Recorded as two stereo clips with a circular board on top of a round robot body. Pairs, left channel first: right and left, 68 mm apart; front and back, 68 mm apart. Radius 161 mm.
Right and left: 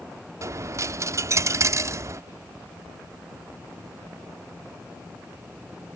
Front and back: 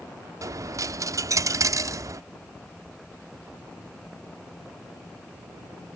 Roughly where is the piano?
I don't hear a piano.